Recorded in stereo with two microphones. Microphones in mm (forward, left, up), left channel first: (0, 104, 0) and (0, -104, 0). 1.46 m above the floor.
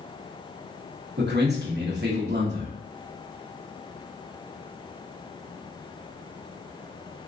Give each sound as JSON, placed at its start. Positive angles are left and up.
{"t": 1.2, "sound": "a man speaking", "side_deg": -50, "distance_m": 1.0}